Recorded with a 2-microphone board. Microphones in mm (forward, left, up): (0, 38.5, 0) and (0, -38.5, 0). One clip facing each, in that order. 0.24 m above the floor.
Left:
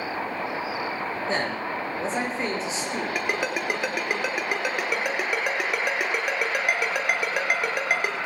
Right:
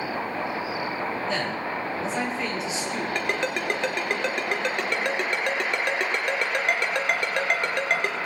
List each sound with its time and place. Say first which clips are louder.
1.3 s a man speaking: left 1 dB; 35° left (ahead or behind), 6 m
3.1 s a ringtone: even; 5° left (ahead or behind), 2.5 m